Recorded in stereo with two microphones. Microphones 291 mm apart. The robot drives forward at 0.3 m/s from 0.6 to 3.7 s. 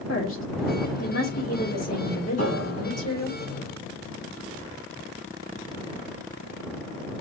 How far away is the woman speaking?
About 3 m.